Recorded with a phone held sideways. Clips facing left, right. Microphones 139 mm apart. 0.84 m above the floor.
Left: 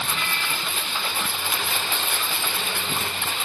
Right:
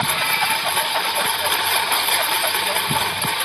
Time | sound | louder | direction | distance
0.0 | a lawn mower | right 7 dB | 70° right (ahead or behind) | ?